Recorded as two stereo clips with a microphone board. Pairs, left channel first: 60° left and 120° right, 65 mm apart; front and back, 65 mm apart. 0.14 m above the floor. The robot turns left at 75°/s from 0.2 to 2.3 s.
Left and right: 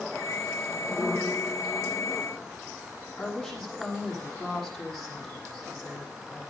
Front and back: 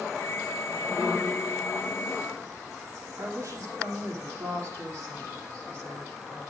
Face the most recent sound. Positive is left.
turn(degrees=145)